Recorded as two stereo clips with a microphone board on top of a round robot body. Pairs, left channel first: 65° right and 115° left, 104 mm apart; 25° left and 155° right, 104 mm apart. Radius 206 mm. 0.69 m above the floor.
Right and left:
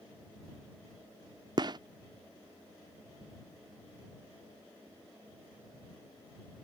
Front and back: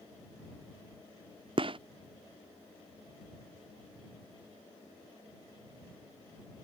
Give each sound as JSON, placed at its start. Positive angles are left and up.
{"t": 1.6, "sound": "a gunshot", "azimuth_deg": 160}